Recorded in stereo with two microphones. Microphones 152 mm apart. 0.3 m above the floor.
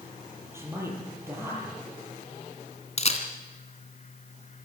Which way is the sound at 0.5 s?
15° right (ahead or behind).